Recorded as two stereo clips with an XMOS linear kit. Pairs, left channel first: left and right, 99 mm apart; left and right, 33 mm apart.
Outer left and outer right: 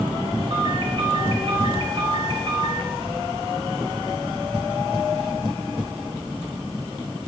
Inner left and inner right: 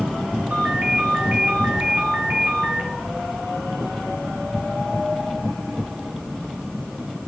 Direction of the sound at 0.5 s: 60° right (ahead or behind).